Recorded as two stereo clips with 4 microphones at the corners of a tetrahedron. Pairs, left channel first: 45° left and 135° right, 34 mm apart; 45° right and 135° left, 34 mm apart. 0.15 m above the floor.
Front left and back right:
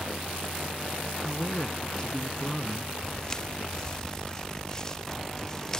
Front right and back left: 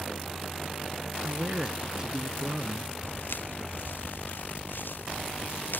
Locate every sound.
1.2 s a man speaking: 90° left
3.0 s footsteps: 25° right